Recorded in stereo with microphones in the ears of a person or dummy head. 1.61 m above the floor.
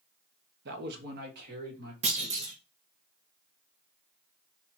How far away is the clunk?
About 0.8 m.